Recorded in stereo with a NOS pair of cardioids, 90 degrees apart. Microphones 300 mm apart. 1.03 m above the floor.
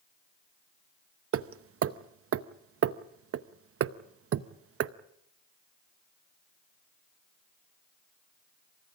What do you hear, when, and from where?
1.3 s hammering: 50° right, 0.8 m